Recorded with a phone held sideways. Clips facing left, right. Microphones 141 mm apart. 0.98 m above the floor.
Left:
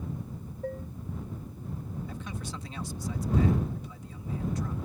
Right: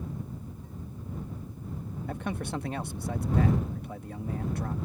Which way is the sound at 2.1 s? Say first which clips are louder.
Right 6 dB; 55° right (ahead or behind).